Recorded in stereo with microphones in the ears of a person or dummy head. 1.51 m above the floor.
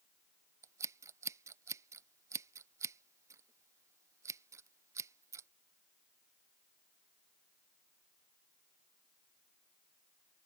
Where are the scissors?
15° right (ahead or behind).